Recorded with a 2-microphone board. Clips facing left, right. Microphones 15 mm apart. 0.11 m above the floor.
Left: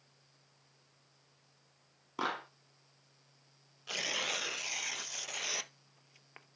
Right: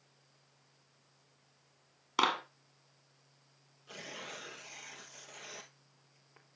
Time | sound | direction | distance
2.2 | a clap | 65° right (ahead or behind) | 2 m
3.9 | tearing paper | 55° left (ahead or behind) | 0.5 m